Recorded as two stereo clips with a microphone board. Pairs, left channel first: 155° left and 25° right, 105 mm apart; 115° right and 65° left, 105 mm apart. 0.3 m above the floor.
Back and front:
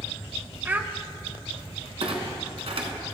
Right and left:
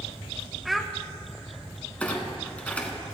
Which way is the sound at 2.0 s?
35° right.